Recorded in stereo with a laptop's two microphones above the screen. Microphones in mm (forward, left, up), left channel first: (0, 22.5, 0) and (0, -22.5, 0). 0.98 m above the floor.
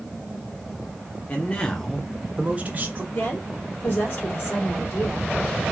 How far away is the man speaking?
About 0.7 m.